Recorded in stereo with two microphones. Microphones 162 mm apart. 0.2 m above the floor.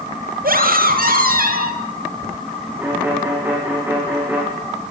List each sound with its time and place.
0.4 s a scream: 65° right (ahead or behind), 5 m
2.8 s a violin: 10° right (ahead or behind), 8 m